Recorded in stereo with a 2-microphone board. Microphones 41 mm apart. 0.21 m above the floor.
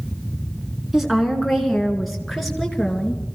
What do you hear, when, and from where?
0.9 s a woman speaking: 5° right (ahead or behind), 3 m; by 3.2 s 5° left (ahead or behind), 4 m